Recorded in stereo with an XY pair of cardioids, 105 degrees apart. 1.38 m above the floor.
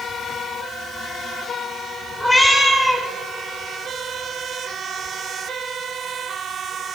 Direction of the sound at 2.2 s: 10° left.